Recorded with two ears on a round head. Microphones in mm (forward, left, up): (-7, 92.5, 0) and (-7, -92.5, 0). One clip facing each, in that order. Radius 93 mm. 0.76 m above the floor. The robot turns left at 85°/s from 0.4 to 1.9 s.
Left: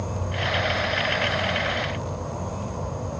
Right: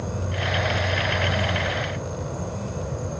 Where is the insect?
25° right, 2.5 m; by 3.2 s 150° right, 2.5 m.